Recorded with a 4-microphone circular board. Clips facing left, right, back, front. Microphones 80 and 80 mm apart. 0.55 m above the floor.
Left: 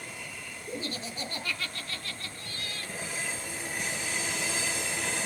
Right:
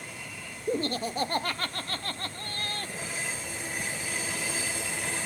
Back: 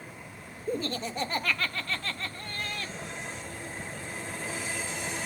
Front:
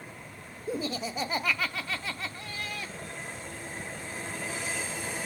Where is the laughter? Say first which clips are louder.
Right 9 dB, back 1 dB; 80° right, 0.8 m.